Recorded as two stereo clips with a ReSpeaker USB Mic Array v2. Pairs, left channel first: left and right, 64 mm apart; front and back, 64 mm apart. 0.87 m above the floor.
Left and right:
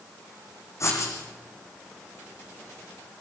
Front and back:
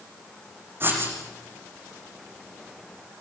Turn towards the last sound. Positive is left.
turn(degrees=125)